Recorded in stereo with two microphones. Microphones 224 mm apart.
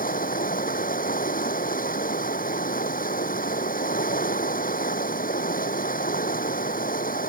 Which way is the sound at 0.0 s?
40° left (ahead or behind).